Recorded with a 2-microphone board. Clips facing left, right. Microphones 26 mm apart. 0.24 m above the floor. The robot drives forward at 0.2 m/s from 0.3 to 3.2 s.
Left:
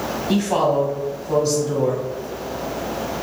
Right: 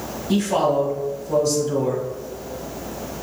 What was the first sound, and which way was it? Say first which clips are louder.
A woman speaking: even; 40° left (ahead or behind).